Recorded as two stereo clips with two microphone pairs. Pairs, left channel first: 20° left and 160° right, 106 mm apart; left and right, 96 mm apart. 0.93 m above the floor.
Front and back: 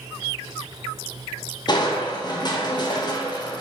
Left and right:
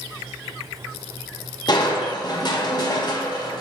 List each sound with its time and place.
1.7 s crushing: 55° left, 0.7 m